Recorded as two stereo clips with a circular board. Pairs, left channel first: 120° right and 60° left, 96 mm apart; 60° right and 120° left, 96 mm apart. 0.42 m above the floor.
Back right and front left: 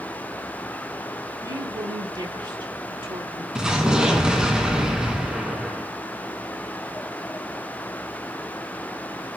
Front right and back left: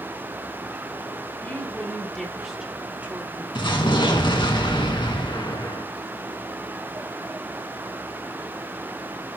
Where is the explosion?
25° right, 2.5 m.